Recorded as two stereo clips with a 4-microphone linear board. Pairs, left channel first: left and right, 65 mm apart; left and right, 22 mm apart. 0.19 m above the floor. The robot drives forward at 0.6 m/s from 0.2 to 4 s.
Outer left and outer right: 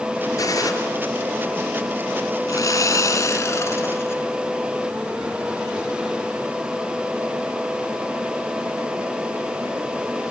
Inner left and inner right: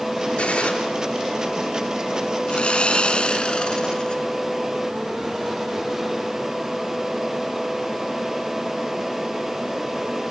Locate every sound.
0.4 s a gunshot: 55° left (ahead or behind), 4 m
2.5 s sawing: 55° left (ahead or behind), 1.1 m; by 4.2 s 40° left (ahead or behind), 1.5 m